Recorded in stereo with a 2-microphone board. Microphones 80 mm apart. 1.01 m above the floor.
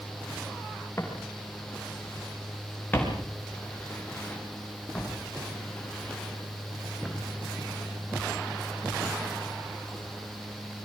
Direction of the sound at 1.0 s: 30° left (ahead or behind).